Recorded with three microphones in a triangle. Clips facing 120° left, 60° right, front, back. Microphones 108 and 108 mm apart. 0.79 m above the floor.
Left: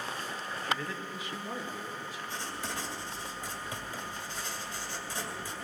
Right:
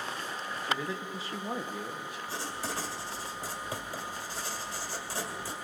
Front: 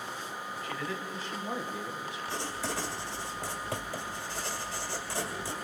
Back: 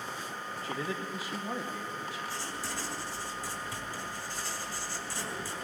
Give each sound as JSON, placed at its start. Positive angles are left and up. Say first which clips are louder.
{"t": 0.6, "sound": "a man speaking", "louder": "right 1 dB, back 2 dB", "azimuth_deg": -135, "distance_m": 1.1}
{"t": 2.3, "sound": "writing", "louder": "right 3 dB, front 3 dB", "azimuth_deg": -5, "distance_m": 1.7}